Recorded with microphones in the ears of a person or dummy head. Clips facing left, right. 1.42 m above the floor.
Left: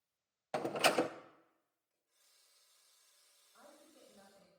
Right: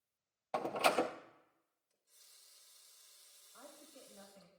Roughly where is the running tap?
Right.